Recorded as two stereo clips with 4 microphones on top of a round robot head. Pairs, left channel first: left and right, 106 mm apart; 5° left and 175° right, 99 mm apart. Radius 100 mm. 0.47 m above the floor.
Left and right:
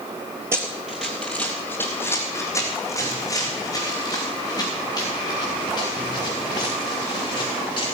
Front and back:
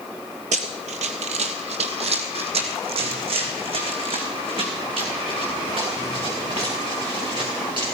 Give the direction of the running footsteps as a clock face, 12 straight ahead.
5 o'clock.